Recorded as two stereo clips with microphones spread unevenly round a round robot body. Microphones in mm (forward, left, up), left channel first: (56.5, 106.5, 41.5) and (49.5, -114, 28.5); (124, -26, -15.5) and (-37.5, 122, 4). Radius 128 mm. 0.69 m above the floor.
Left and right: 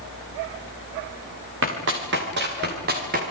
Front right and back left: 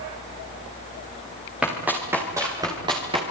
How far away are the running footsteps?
About 7 m.